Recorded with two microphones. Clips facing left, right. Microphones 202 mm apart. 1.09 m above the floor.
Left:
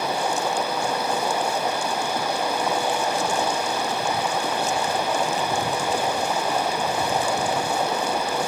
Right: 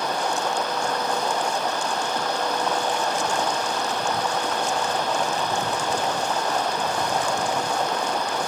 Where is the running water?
10° left (ahead or behind).